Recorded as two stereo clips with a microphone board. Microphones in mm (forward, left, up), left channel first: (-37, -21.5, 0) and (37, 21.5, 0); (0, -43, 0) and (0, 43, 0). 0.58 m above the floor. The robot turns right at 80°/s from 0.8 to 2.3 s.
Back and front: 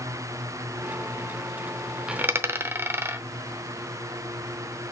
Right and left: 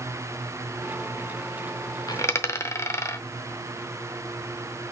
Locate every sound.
2.1 s a dropped coin: 50° right, 0.7 m; by 3.2 s 30° right, 0.7 m